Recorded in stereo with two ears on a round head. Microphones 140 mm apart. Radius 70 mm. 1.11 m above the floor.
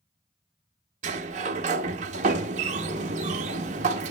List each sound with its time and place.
1.0 s a sliding door: 50° right (ahead or behind), 0.6 m